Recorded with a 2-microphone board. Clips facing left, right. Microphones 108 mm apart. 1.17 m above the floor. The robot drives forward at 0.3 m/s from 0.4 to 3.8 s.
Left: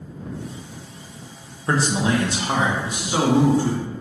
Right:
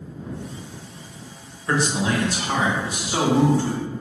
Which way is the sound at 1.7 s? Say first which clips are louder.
Left 2 dB; 35° left (ahead or behind).